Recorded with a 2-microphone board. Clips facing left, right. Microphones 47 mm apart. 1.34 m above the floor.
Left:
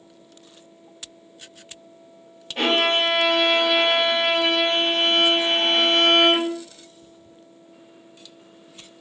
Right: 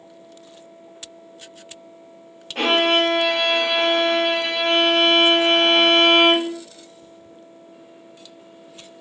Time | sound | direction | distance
2.5 | a violin | 60° right (ahead or behind) | 1.6 m